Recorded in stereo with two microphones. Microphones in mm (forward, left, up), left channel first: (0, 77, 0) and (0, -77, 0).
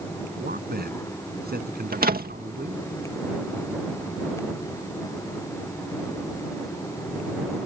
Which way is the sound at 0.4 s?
85° right.